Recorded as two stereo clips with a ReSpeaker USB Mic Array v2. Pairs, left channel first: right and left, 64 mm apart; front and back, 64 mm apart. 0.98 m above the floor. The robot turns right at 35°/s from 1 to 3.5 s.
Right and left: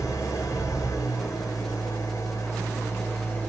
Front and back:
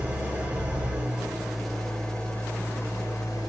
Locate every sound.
0.0 s an engine running: 115° right, 4 m; by 3.5 s 25° right, 4 m